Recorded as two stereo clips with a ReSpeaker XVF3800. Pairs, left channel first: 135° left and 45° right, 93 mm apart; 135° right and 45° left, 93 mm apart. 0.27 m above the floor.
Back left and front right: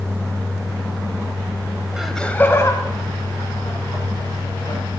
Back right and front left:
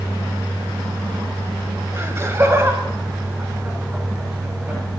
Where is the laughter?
30° left, 1.1 m; by 4.8 s 115° left, 4.5 m.